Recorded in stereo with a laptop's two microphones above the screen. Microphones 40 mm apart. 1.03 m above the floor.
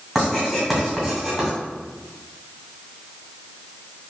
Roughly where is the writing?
Centre.